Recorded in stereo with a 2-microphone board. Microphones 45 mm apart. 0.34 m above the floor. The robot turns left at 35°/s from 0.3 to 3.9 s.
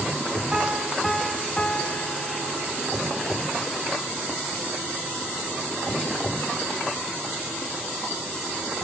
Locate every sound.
0.5 s a piano: 165° right, 1.0 m; by 3.0 s 110° left, 1.0 m